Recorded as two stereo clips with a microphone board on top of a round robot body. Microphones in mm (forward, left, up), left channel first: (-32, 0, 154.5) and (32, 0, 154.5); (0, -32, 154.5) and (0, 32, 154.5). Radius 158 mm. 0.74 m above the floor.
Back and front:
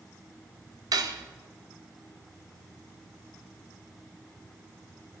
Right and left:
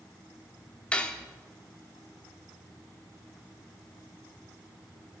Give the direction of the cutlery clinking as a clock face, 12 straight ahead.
1 o'clock.